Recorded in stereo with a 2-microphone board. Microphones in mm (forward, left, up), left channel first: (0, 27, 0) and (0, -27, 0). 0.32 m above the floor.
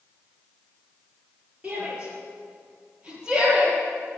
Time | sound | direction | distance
1.6 | a shout | 20° right (ahead or behind) | 6 m